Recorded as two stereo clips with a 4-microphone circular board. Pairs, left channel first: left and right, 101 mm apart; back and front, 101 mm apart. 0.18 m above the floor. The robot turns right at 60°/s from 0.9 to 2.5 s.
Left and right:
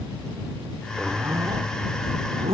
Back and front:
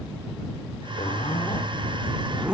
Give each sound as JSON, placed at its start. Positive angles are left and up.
{"t": 1.0, "sound": "a zipper", "azimuth_deg": -170}